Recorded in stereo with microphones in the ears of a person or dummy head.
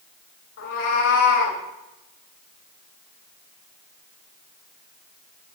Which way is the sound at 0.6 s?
75° left (ahead or behind).